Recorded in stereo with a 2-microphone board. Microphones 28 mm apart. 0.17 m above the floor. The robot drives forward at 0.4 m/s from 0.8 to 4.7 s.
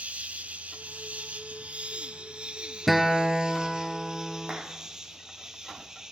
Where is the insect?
60° right (ahead or behind), 0.7 m; by 6.1 s 20° right (ahead or behind), 1.7 m.